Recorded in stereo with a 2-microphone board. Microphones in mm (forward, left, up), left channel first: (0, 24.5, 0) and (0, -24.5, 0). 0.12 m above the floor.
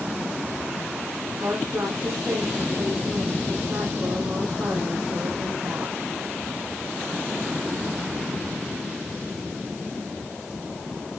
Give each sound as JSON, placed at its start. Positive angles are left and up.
{"t": 1.4, "sound": "a woman speaking", "side_deg": -70, "distance_m": 6.5}